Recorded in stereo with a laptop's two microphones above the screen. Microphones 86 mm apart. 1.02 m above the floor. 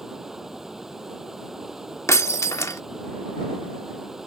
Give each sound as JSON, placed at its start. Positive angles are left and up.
{"t": 0.0, "sound": "running water", "side_deg": -5}
{"t": 2.1, "sound": "breaking glass", "side_deg": 35}